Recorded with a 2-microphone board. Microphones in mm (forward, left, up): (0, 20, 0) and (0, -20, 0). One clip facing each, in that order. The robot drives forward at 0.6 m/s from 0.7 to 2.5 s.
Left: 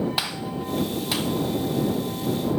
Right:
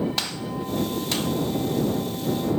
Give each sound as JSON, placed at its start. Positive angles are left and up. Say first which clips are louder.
{"t": 0.2, "sound": "a gunshot", "louder": "left 1 dB", "side_deg": 10, "distance_m": 0.6}